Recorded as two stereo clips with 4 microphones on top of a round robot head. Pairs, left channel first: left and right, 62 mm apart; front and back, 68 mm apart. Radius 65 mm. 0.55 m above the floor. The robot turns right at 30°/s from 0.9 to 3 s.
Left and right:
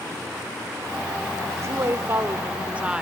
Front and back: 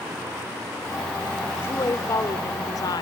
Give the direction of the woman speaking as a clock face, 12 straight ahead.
2 o'clock.